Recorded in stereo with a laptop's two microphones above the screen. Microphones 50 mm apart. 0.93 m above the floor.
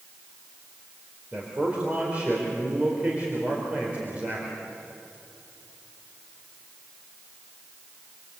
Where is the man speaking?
30° right (ahead or behind), 3.5 m.